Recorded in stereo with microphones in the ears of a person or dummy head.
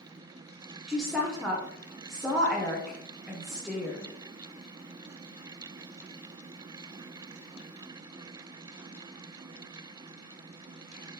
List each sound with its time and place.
0.9 s a woman speaking: 5° right (ahead or behind), 0.6 m